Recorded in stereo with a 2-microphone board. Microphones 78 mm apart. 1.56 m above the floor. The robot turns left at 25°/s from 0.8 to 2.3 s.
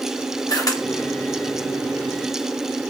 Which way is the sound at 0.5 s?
50° left (ahead or behind).